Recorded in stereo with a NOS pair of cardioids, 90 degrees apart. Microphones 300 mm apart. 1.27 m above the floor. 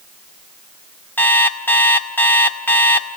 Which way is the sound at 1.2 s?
5° left.